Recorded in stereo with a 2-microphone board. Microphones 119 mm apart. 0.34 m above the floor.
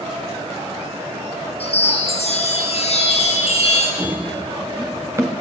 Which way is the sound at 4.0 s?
10° right (ahead or behind).